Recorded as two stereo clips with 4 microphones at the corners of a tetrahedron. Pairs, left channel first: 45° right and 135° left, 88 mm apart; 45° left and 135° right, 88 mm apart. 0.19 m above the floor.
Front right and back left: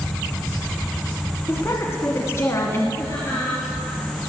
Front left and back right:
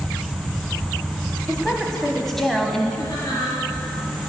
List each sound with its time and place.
1.5 s a woman speaking: 40° right, 1.2 m
3.0 s laughter: 10° left, 3.5 m